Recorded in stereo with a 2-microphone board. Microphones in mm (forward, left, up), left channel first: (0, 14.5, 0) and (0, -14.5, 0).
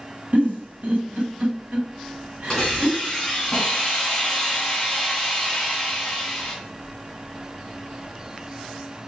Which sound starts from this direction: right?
A giggle, at 0.3 s.